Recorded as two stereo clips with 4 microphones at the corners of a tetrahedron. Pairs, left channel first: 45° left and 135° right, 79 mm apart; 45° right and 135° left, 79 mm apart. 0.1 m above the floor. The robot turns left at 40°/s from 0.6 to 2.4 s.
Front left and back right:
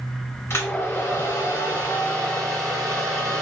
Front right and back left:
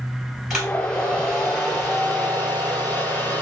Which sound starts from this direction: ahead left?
A hair dryer, at 0.5 s.